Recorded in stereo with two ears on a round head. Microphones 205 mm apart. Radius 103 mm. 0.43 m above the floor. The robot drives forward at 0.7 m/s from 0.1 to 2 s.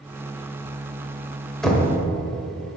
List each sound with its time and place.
1.6 s knocking: centre (ahead or behind), 1.3 m